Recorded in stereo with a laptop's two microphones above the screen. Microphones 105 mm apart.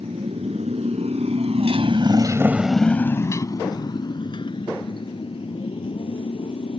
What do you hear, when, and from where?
0.0 s a motorcycle: 85° right; by 6.8 s 60° left (ahead or behind)